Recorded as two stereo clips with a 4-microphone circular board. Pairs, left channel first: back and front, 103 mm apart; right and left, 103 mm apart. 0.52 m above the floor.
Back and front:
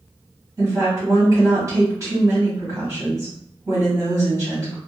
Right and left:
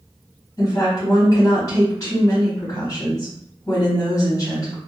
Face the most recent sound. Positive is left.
turn(degrees=-45)